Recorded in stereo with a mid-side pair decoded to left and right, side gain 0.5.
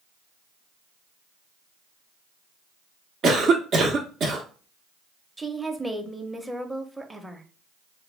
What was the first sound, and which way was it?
A cough, 50° right.